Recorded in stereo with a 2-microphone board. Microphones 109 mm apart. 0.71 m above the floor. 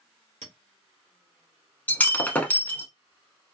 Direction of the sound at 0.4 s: 75° right (ahead or behind).